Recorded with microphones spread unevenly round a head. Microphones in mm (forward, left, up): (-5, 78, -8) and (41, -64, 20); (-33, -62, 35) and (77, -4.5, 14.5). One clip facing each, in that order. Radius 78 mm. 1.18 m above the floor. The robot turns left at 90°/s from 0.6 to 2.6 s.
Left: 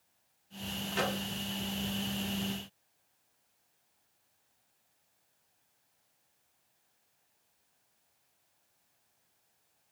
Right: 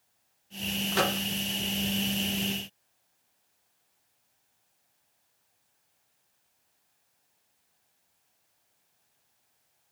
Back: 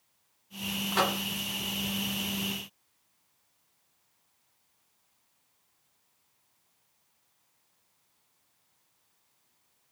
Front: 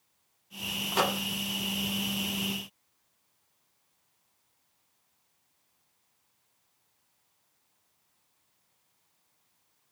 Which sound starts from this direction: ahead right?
A microwave, at 0.9 s.